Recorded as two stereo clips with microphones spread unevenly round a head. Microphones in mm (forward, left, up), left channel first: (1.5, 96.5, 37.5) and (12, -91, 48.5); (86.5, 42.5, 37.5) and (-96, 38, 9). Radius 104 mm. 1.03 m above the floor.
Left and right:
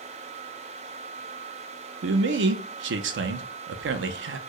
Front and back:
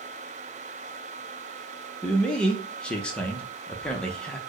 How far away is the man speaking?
About 0.5 m.